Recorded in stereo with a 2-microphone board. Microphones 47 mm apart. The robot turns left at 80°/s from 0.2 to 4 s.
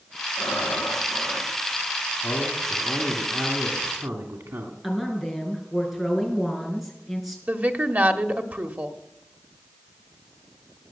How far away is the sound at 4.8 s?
About 4.5 m.